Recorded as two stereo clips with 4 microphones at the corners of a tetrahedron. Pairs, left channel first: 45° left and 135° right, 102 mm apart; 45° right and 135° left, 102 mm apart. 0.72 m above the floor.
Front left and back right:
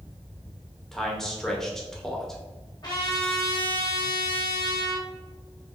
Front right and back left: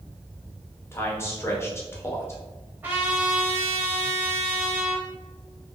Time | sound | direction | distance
0.9 | a man speaking | 35° right | 0.7 m
2.8 | a trumpet | 75° left | 1.2 m